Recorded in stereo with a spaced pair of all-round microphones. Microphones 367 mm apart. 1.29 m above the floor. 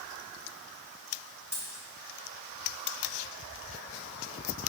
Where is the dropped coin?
30° right (ahead or behind), 3 m.